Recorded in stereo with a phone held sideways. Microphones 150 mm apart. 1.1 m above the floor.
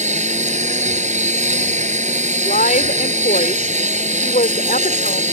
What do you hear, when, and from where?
0.0 s a lawn mower: 50° right (ahead or behind)
2.4 s a woman speaking: 70° left (ahead or behind)